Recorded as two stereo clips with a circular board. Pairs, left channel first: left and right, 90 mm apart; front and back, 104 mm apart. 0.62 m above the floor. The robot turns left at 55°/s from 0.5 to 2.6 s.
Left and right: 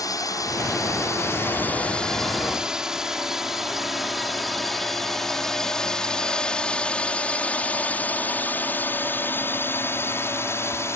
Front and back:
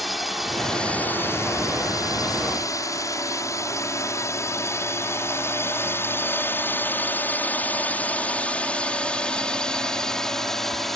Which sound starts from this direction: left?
A drone, at 0.0 s.